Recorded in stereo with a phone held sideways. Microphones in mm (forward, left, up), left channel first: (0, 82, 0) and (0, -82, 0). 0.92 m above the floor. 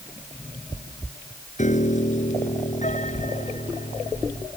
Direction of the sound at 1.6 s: 50° left (ahead or behind).